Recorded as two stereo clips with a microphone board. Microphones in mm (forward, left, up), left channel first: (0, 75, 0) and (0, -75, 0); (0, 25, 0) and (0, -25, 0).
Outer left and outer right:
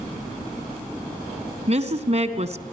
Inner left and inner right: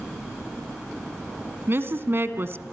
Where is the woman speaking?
50° right (ahead or behind), 1.5 m.